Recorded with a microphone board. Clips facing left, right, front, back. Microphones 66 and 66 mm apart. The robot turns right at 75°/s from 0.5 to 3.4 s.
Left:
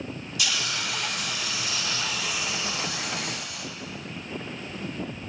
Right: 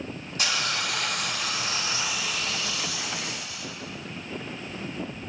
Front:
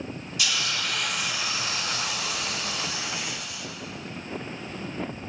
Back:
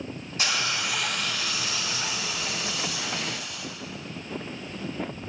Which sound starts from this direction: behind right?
A hiss, at 0.4 s.